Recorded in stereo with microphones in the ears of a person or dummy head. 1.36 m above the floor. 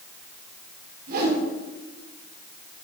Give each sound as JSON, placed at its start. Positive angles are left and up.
{"t": 1.1, "sound": "a whoosh", "side_deg": -55, "distance_m": 3.0}